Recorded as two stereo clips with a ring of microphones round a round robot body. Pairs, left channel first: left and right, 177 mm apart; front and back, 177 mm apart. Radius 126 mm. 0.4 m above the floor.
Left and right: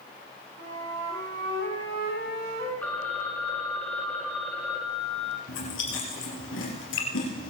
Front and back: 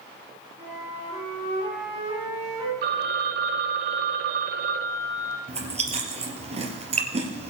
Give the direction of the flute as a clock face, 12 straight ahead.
3 o'clock.